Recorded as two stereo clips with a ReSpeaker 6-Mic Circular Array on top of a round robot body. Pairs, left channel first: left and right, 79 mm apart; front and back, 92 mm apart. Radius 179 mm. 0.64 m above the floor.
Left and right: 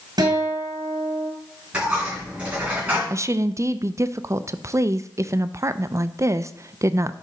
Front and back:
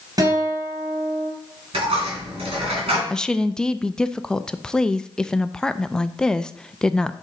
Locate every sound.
0.2 s a guitar: 130° right, 2.5 m
1.7 s a dropped coin: 165° right, 3 m
3.1 s a woman speaking: 80° right, 0.5 m